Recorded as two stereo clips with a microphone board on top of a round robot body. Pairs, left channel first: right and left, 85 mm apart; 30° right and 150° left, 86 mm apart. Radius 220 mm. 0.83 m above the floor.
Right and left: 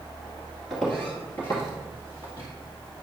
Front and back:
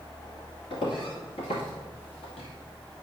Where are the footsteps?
5° right, 1.6 m; by 2.5 s 45° right, 2 m.